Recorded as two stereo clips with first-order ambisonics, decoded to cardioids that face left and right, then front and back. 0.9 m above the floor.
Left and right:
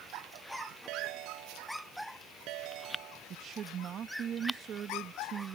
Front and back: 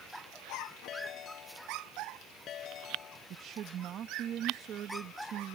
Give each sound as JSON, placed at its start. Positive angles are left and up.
{"t": 0.9, "sound": "a ringtone", "azimuth_deg": -55}
{"t": 3.3, "sound": "a woman speaking", "azimuth_deg": -140}